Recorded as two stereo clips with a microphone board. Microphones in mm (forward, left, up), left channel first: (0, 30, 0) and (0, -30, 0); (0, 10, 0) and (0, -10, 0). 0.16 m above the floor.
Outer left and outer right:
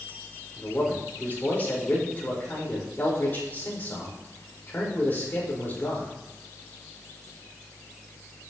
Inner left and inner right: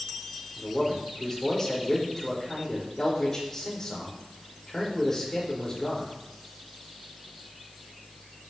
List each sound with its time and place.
0.6 s a man speaking: 30° left (ahead or behind), 5.5 m